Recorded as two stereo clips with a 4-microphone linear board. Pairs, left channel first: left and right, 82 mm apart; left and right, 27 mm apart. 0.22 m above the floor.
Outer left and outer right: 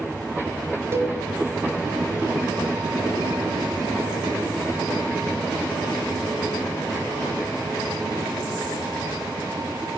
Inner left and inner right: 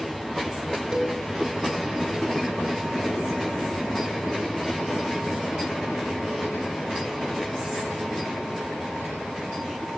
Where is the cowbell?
30° right (ahead or behind), 0.5 m.